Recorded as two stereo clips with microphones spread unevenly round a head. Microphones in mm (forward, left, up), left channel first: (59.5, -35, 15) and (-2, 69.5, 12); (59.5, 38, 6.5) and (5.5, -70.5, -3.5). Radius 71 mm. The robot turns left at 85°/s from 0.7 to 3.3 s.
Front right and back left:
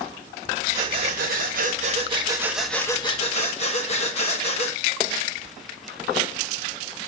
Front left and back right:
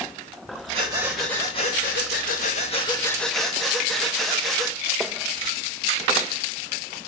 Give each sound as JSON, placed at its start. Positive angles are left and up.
{"t": 0.7, "sound": "breathing", "azimuth_deg": -165, "distance_m": 1.6}